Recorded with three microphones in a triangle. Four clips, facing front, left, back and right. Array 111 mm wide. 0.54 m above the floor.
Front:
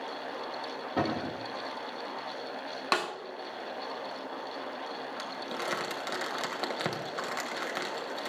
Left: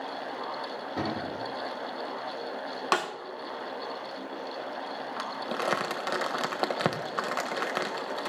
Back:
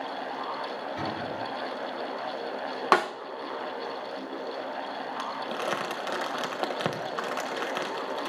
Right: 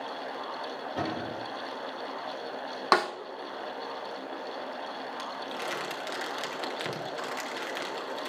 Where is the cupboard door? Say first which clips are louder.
Left 1 dB, front 5 dB; 10° left, 7.5 m.